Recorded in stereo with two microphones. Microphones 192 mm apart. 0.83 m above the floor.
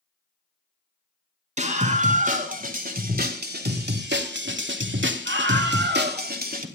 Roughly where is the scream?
Right.